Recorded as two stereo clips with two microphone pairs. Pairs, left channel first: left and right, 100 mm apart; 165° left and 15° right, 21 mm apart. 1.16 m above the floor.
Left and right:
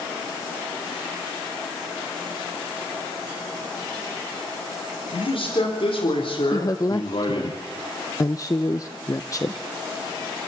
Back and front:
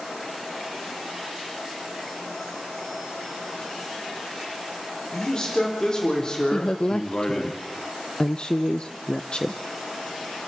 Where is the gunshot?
I don't hear a gunshot.